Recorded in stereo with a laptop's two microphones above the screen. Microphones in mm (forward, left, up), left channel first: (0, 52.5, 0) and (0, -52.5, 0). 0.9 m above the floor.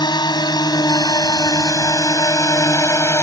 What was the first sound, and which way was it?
A drone, 45° left (ahead or behind).